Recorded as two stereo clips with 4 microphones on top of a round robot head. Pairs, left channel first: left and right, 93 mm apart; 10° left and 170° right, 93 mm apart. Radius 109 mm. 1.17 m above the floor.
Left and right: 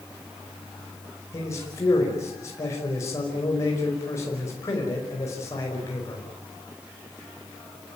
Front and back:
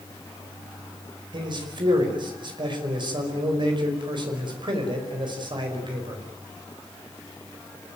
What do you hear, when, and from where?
1.3 s a man speaking: 155° left, 5.5 m